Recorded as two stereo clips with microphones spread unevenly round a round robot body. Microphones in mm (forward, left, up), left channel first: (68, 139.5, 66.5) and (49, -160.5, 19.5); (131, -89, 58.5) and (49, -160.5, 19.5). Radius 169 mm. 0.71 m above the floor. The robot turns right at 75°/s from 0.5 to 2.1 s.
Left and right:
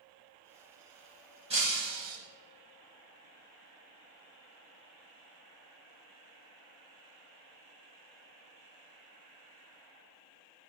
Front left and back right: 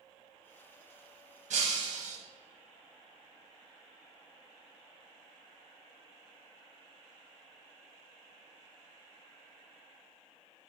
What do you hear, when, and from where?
1.5 s breaking glass: 170° right, 1.0 m; by 2.2 s 125° right, 1.0 m